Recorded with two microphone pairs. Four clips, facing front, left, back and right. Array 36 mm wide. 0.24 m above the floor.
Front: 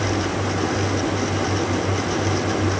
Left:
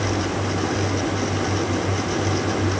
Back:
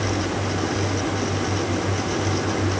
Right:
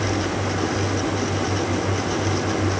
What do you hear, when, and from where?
Only background noise.